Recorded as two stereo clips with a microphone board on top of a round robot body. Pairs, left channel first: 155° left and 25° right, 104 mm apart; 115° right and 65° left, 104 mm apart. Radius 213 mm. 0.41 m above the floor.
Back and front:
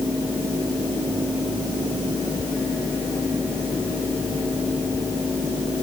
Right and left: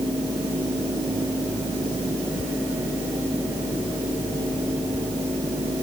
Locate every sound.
Only background noise.